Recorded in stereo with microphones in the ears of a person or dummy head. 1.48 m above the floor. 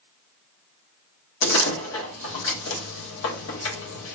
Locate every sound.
1.4 s a door slam: 80° left, 1.7 m